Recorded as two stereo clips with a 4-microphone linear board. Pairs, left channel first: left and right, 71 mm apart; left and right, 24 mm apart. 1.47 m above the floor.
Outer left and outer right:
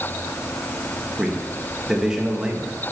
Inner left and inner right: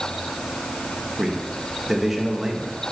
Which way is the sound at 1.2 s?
10° right (ahead or behind).